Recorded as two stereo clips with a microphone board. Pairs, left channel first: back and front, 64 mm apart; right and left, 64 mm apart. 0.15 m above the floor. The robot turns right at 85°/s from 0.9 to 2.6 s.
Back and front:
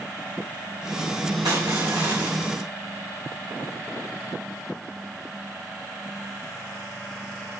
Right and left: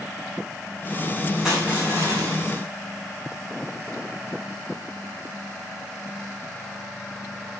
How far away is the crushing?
About 4 m.